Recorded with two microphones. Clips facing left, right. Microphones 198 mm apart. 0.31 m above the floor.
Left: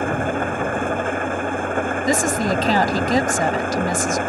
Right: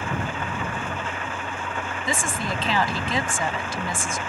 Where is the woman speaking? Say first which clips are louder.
Left 8 dB; 40° left (ahead or behind).